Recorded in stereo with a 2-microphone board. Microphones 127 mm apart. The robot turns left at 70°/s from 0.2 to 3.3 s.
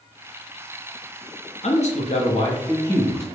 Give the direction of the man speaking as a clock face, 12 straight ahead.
8 o'clock.